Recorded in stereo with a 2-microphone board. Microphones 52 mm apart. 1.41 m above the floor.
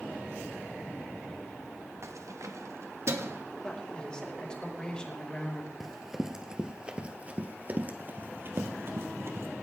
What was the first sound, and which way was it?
Keys jangling, 60° right (ahead or behind).